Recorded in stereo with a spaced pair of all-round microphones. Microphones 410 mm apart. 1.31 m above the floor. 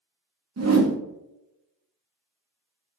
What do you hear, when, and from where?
0.6 s a whoosh: 40° right (ahead or behind), 0.5 m